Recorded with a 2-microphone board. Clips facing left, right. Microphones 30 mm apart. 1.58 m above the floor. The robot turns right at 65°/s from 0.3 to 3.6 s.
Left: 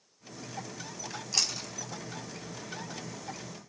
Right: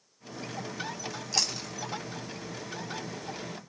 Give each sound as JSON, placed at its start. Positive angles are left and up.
{"t": 1.1, "sound": "chewing", "side_deg": 10, "distance_m": 4.0}